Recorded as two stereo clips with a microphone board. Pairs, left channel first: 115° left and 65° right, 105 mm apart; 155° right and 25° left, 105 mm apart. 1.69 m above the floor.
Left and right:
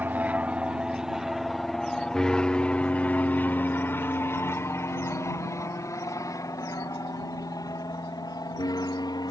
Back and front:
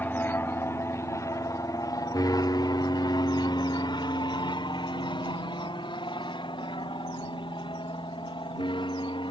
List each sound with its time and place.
0.0 s an aircraft: 115° right; by 9.3 s 165° left